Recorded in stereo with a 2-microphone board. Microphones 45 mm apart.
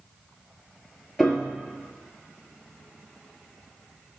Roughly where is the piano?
Centre.